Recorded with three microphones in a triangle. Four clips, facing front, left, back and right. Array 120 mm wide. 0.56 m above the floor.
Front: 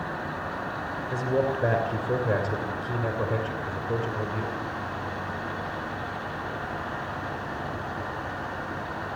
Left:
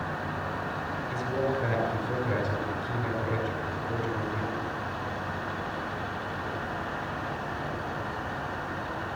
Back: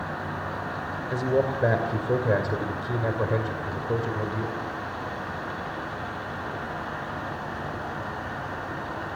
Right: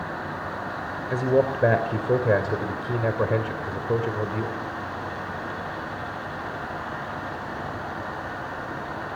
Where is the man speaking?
105° right, 2.5 m.